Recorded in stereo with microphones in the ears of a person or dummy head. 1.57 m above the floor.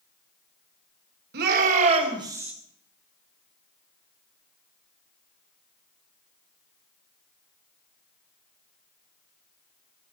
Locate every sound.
1.3 s a shout: 50° right (ahead or behind), 1.8 m; by 2.5 s 5° right (ahead or behind), 1.4 m